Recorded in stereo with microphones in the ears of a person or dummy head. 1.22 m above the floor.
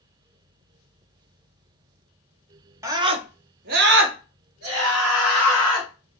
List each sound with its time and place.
2.8 s a scream: 20° right (ahead or behind), 0.7 m; by 5.9 s 75° right (ahead or behind), 1.6 m